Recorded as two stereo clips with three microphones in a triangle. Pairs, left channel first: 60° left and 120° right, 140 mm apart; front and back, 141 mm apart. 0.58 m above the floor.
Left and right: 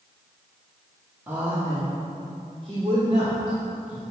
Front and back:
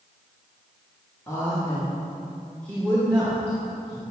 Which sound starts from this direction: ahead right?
A woman speaking, at 1.3 s.